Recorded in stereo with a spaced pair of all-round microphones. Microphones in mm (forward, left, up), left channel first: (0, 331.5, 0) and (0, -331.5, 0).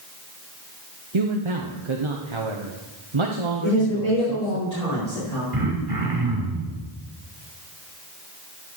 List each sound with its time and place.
1.1 s a man speaking: 45° right (ahead or behind), 1.1 m
3.6 s a woman speaking: 75° left (ahead or behind), 6 m
5.5 s throat clearing: 35° right (ahead or behind), 3 m